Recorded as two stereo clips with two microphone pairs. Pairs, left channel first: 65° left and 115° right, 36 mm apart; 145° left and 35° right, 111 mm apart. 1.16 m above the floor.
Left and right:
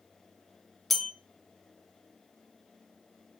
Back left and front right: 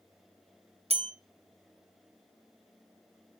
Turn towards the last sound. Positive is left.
turn(degrees=-20)